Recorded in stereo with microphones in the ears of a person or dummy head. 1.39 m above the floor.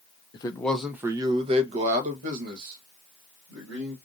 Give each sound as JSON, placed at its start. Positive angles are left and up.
{"t": 0.3, "sound": "a man speaking", "side_deg": 25, "distance_m": 0.5}